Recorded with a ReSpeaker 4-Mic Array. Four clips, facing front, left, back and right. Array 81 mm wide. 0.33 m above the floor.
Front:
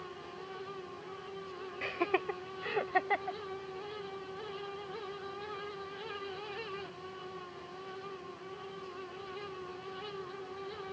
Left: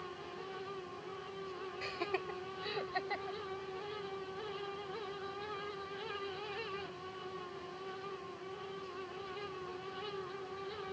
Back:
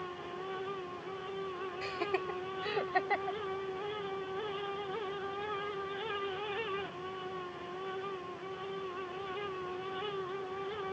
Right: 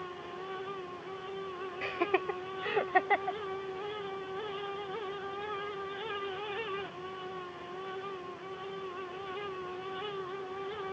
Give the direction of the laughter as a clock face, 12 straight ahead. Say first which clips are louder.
Right 9 dB, front 3 dB; 2 o'clock.